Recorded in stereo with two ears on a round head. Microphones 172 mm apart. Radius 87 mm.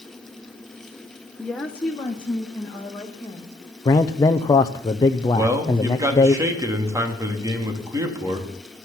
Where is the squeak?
No squeak in this recording.